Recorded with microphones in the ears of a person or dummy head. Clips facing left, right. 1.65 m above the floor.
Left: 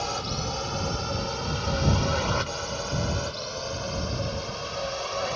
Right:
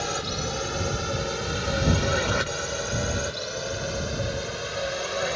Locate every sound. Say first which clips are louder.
0.0 s a drone: right 1 dB; 20° right (ahead or behind)